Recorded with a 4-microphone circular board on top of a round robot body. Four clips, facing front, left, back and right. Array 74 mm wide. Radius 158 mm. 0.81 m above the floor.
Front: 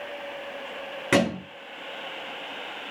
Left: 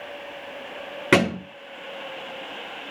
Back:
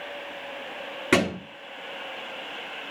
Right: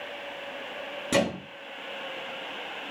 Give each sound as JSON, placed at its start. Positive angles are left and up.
{"t": 1.1, "sound": "a thud", "azimuth_deg": 95, "distance_m": 8.0}